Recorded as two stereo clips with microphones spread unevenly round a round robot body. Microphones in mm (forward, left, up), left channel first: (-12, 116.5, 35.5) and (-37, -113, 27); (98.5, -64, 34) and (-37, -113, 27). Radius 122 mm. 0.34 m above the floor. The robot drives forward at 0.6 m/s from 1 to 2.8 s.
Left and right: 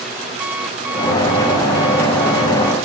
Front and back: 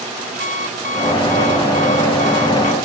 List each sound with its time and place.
0.4 s an alarm clock: 10° right